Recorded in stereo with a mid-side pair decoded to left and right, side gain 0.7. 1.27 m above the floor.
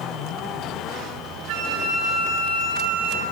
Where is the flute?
65° right, 2.5 m.